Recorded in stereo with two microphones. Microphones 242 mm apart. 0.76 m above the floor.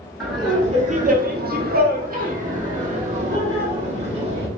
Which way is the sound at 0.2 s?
10° right (ahead or behind).